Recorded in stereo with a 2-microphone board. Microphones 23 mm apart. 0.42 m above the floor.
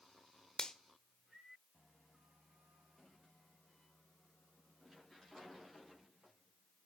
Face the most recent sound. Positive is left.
turn(degrees=35)  # may be behind; listen again after turning